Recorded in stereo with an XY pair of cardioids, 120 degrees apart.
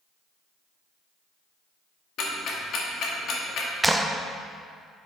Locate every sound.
2.2 s ticking: 60° left, 2.0 m
3.8 s a clap: 10° right, 0.6 m